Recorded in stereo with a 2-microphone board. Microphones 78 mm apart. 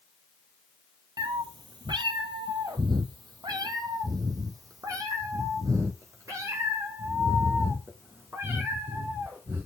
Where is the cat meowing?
75° right (ahead or behind), 1.3 m; by 9.7 s 30° right (ahead or behind), 4.5 m.